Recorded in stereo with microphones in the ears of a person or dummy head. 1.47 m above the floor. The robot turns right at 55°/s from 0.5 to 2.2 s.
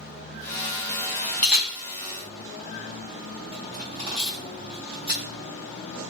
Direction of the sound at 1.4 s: 15° left (ahead or behind).